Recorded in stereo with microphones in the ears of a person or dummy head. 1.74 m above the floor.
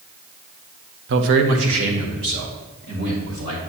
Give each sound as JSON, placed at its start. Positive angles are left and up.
{"t": 1.1, "sound": "a man speaking", "side_deg": -60, "distance_m": 0.9}